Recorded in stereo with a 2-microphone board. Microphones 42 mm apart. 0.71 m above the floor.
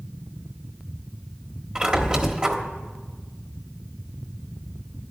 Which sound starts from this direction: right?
A squeak, at 1.8 s.